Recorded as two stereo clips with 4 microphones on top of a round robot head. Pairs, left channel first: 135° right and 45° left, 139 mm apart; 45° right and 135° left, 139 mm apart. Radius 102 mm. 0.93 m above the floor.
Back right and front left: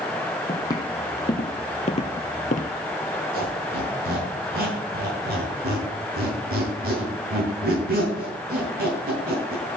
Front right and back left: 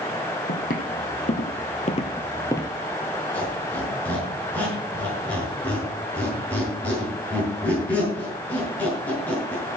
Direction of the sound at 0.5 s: 70° right.